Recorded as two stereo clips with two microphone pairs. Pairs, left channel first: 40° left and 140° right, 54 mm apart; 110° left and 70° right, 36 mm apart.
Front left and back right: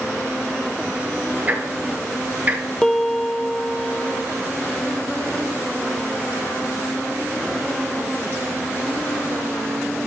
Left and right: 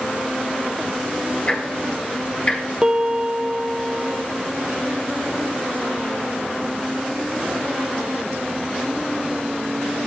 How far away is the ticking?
About 2 m.